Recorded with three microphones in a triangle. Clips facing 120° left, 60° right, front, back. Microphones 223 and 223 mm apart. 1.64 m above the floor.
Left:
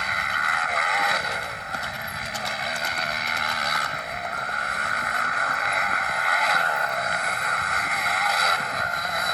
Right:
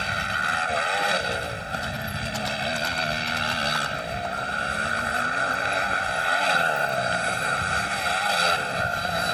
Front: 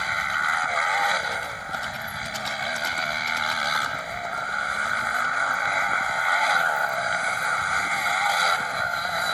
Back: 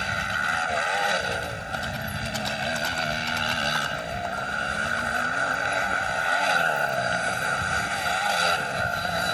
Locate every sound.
0.0 s a motorcycle: 120° right